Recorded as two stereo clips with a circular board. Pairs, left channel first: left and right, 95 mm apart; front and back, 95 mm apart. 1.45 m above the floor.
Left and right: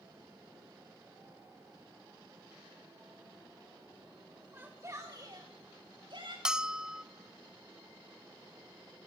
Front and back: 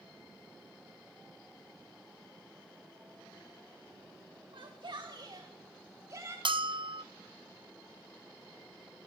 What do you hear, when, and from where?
4.5 s a shout: 160° right, 2 m; by 6.3 s 120° right, 4 m
6.5 s a bell: 170° right, 0.9 m